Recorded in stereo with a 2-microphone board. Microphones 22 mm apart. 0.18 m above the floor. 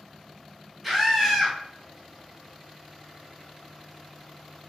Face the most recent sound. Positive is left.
turn(degrees=0)  # may be behind; listen again after turning